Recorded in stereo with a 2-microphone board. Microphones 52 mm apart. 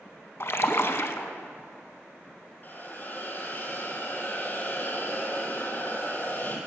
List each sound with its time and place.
0.4 s a splash: 60° left (ahead or behind), 0.8 m
2.6 s a hiss: 40° left (ahead or behind), 1.8 m